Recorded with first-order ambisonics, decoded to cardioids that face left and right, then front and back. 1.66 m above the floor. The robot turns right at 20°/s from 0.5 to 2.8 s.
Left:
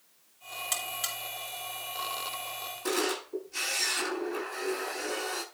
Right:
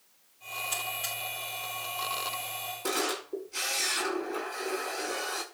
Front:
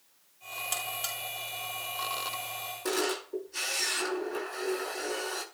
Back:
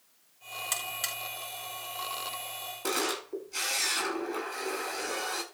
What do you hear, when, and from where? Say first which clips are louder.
0.7 s a buzzer: left 1 dB, back 1 dB; 150° left, 4.5 m; by 1.2 s 160° left, 4.5 m
2.8 s a camera shutter: left 1 dB, even; 160° right, 9.5 m